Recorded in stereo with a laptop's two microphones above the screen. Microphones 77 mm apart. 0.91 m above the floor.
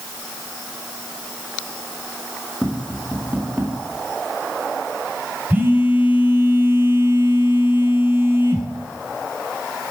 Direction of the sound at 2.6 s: 20° right (ahead or behind).